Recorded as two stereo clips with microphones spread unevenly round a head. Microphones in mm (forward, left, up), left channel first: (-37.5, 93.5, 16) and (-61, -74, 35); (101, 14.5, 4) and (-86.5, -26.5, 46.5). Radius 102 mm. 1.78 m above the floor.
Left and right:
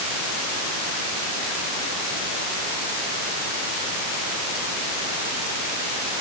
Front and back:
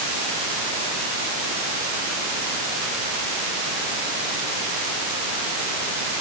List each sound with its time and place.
Only background noise.